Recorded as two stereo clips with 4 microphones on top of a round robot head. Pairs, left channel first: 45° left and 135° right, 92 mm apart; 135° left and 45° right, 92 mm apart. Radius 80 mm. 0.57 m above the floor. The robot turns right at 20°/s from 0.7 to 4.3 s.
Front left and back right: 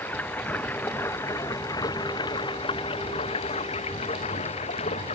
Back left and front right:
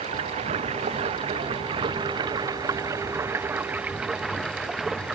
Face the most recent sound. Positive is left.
turn(degrees=40)